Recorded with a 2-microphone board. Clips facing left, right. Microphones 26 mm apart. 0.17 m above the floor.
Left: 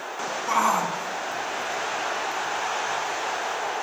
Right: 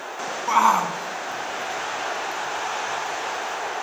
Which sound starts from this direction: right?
A shout, at 0.5 s.